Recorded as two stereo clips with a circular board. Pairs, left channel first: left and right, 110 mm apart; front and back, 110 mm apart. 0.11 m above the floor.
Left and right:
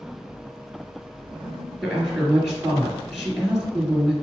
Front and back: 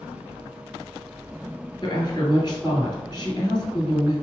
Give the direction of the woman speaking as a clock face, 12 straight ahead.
12 o'clock.